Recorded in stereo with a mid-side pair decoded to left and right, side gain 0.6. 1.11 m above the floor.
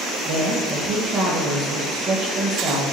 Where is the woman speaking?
55° right, 0.9 m.